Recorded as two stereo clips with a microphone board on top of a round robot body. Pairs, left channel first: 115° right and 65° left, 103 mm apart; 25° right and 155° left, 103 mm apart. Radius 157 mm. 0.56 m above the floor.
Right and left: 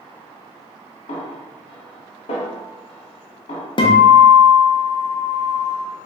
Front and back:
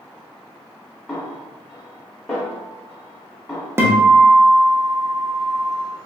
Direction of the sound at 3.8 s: 140° right.